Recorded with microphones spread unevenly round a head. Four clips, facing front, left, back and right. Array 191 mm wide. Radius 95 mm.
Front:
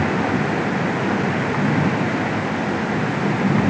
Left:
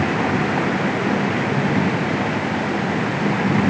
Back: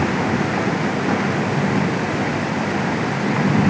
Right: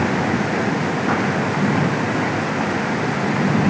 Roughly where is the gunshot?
I don't hear a gunshot.